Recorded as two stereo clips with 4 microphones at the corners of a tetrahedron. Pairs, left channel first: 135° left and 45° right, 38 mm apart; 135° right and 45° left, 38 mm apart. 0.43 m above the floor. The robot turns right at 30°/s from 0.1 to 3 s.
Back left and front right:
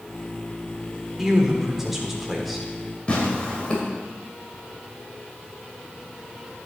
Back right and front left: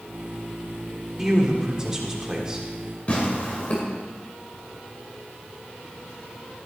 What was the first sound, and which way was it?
A man speaking, straight ahead.